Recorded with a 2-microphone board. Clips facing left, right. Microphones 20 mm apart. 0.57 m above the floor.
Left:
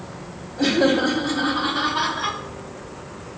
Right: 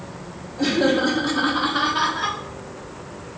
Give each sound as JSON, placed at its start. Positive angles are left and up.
{"t": 0.6, "sound": "laughter", "side_deg": 15, "distance_m": 1.1}